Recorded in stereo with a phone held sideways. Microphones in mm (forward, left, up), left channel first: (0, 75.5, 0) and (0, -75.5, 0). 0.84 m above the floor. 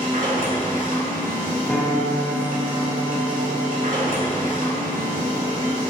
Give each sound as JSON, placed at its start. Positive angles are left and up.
{"t": 0.0, "sound": "a machine running", "side_deg": -60, "distance_m": 1.2}
{"t": 1.7, "sound": "a piano", "side_deg": 10, "distance_m": 0.5}